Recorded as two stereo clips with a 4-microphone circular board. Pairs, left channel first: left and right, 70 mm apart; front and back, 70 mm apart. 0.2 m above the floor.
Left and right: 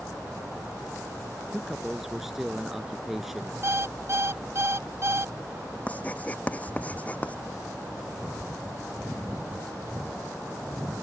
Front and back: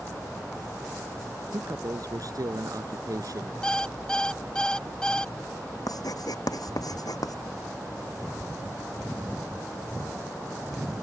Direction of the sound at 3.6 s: 75° right.